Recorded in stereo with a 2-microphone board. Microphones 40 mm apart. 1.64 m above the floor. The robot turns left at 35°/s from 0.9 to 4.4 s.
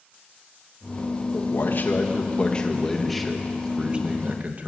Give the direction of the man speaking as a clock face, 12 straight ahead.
10 o'clock.